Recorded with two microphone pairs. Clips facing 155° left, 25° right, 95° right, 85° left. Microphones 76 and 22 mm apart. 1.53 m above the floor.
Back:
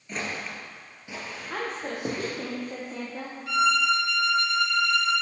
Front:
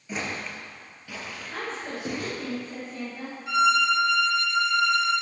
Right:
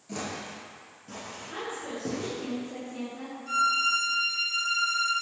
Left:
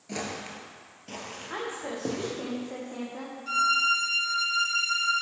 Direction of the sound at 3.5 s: 40° left.